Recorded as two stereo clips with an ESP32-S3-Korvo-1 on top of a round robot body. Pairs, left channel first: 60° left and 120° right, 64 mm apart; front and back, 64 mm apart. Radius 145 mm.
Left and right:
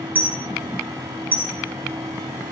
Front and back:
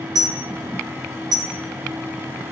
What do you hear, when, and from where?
0.1 s a dropped coin: straight behind, 1.2 m